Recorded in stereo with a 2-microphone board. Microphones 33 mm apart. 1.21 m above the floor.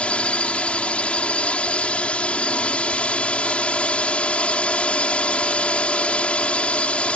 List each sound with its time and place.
0.0 s a drone: 35° left (ahead or behind)